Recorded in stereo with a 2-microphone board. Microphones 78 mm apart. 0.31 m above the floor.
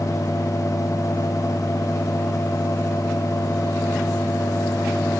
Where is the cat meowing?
No cat meowing in this recording.